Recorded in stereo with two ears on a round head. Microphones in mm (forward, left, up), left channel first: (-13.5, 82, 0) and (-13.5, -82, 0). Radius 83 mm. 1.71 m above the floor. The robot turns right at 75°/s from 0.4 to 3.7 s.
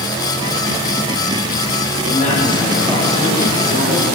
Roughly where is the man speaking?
Behind left.